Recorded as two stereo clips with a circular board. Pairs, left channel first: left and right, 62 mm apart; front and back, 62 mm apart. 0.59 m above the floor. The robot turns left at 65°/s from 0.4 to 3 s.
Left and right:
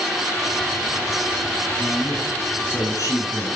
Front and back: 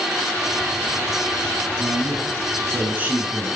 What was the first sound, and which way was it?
A man speaking, 160° right.